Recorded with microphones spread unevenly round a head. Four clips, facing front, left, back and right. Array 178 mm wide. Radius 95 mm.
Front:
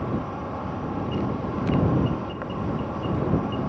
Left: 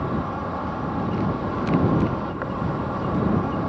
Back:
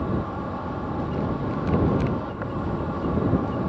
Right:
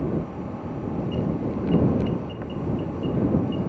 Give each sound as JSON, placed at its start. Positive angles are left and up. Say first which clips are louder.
{"t": 0.0, "sound": "an insect", "louder": "left 2 dB, back 1 dB", "azimuth_deg": 75}